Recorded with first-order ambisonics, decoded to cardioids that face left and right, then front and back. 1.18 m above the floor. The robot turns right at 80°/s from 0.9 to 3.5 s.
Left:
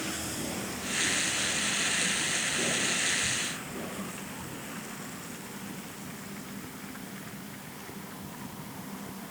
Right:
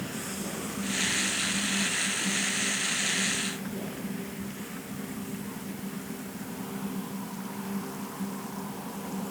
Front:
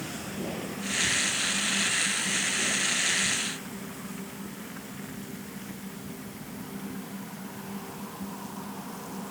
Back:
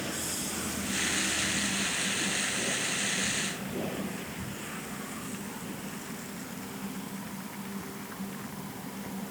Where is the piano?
I don't hear a piano.